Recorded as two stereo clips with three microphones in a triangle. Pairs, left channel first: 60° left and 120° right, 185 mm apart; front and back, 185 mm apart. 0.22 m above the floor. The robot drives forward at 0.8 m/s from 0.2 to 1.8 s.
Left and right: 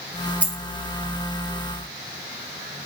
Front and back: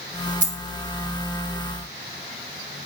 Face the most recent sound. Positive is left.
turn(degrees=165)